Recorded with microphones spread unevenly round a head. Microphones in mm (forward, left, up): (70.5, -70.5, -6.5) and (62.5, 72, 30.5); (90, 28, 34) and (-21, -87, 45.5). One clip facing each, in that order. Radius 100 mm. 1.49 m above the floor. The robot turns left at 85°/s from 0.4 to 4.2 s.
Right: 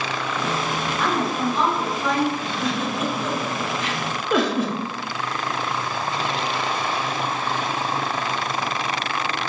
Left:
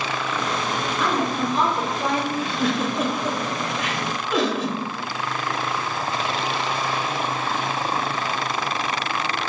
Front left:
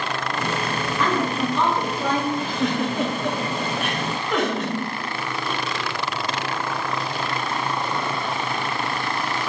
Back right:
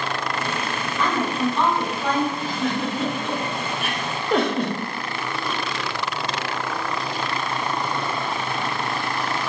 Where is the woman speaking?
130° left, 1.1 m; by 2.2 s 25° left, 1.1 m.